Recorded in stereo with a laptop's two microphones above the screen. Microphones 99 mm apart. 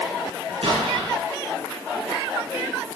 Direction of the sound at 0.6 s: 75° right (ahead or behind).